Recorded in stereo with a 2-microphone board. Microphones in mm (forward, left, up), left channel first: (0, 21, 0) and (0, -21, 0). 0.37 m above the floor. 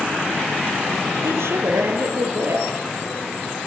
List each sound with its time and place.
1.2 s a woman speaking: 85° right, 8 m